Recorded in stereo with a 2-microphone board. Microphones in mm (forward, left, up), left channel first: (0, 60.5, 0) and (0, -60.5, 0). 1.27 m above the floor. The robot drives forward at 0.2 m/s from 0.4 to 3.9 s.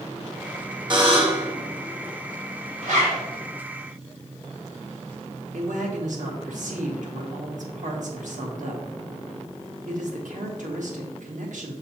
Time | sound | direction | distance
0.9 | a buzzer | 40° right (ahead or behind) | 1.5 m
2.8 | a zipper | 65° right (ahead or behind) | 2.5 m
5.5 | a man speaking | 80° right | 1.6 m